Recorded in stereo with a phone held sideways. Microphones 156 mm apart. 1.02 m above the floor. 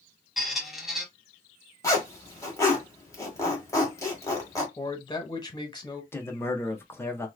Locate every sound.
0.4 s a squeak: centre (ahead or behind), 1.0 m
1.8 s a zipper: 20° left (ahead or behind), 1.5 m
4.8 s a man speaking: 25° left (ahead or behind), 1.1 m
6.1 s a man speaking: 15° left (ahead or behind), 0.9 m